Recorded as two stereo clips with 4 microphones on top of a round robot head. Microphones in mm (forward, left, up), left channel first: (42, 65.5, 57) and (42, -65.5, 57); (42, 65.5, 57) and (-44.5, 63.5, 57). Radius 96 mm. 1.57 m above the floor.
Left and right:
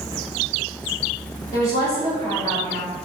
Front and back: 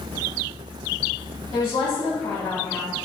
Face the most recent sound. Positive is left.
turn(degrees=25)